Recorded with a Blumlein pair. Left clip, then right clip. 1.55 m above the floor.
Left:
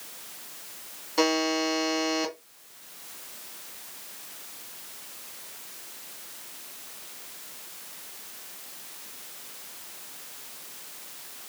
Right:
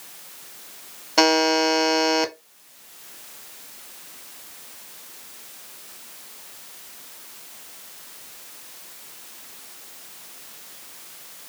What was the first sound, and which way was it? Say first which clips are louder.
A buzzer: right 7 dB; 30° right.